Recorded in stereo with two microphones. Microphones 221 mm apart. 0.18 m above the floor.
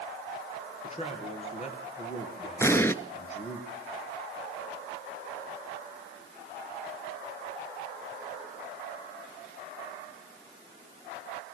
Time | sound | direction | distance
0.8 | a man speaking | 30° left (ahead or behind) | 3.5 m
2.6 | an explosion | 10° left (ahead or behind) | 0.5 m